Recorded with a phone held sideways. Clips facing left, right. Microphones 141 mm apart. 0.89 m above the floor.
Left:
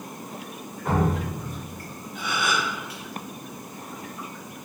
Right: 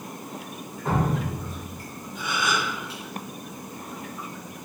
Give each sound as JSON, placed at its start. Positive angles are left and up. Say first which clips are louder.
{"t": 0.8, "sound": "dripping", "louder": "left 1 dB", "side_deg": -30, "distance_m": 1.5}
{"t": 2.1, "sound": "a gasp", "louder": "even", "side_deg": 65, "distance_m": 1.0}